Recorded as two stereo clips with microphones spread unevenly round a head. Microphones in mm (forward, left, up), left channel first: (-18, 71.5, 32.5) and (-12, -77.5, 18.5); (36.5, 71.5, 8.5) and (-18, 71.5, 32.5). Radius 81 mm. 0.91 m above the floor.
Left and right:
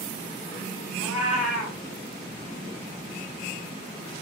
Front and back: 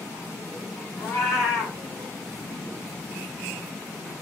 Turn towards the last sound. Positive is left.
turn(degrees=0)